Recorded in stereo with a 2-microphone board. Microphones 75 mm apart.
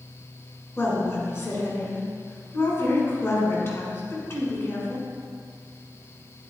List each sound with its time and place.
0.8 s a woman speaking: 35° left (ahead or behind), 1.8 m